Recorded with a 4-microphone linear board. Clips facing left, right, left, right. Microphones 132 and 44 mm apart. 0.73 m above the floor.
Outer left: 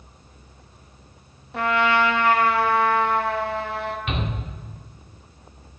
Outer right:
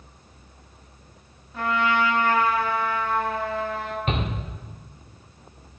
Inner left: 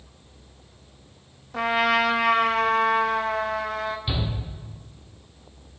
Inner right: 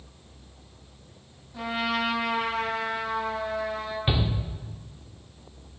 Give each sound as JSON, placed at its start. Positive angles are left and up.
{"t": 1.5, "sound": "a trumpet", "side_deg": 75, "distance_m": 0.8}
{"t": 4.1, "sound": "a shout", "side_deg": -40, "distance_m": 1.6}